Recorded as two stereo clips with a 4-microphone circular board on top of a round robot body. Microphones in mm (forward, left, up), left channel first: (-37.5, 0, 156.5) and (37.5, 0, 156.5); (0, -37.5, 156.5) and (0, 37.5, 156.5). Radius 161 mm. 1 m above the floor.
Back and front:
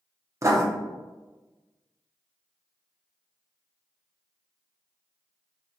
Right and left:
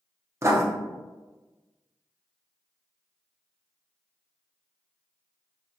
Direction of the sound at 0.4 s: 45° left.